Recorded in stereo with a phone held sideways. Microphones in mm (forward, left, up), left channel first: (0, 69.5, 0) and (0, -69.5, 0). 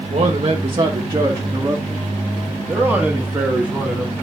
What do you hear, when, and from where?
0.1 s a man speaking: 50° right (ahead or behind), 1.2 m; by 4.1 s 5° right (ahead or behind), 2.5 m